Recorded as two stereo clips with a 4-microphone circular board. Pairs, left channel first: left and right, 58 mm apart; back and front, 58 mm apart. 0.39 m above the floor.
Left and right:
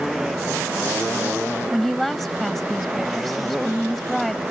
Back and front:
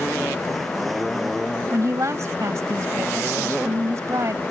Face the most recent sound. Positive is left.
turn(degrees=5)